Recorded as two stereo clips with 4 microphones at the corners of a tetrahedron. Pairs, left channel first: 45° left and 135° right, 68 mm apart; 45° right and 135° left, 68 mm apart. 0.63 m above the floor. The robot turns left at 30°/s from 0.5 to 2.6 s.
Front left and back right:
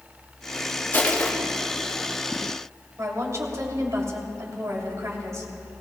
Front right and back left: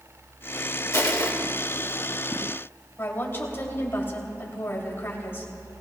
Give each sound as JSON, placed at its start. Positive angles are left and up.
{"t": 0.9, "sound": "crushing", "azimuth_deg": -15, "distance_m": 2.0}
{"t": 3.0, "sound": "a woman speaking", "azimuth_deg": -100, "distance_m": 3.0}